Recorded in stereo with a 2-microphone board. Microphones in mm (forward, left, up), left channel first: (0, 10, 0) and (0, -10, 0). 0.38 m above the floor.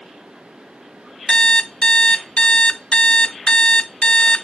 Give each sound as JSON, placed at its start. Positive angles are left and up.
{"t": 1.3, "sound": "an alarm clock", "side_deg": 40, "distance_m": 0.9}